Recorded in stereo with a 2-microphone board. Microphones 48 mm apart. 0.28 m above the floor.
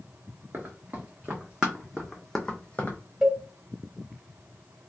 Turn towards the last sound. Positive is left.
turn(degrees=-5)  # may be behind; listen again after turning